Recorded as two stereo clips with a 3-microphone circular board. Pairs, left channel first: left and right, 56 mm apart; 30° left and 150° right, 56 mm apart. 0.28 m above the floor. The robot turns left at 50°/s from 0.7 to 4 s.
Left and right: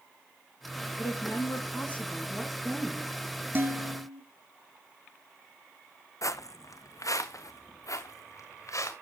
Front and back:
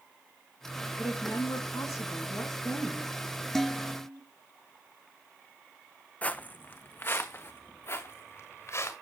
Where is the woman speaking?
75° left, 2.5 m; by 3.1 s 30° right, 2.5 m.